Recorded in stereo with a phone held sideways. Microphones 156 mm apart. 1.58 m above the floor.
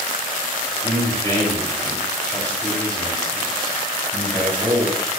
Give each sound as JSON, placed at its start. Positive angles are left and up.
{"t": 0.8, "sound": "a man speaking", "side_deg": 25, "distance_m": 3.0}